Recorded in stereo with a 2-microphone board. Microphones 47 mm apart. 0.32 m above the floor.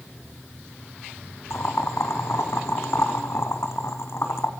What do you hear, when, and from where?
1.5 s boiling: 65° left (ahead or behind), 2.5 m